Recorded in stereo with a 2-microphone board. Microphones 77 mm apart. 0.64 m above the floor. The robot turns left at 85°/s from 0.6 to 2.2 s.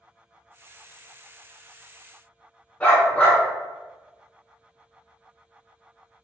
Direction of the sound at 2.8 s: 15° left (ahead or behind).